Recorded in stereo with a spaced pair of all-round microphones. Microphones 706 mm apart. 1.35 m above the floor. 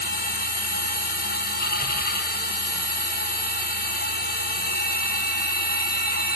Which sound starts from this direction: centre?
A machine running, at 0.0 s.